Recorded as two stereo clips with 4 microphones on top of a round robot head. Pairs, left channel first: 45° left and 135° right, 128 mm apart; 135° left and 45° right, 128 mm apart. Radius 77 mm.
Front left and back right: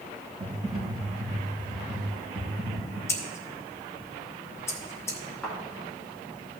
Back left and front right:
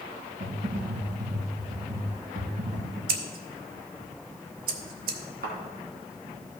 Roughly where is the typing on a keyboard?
Right.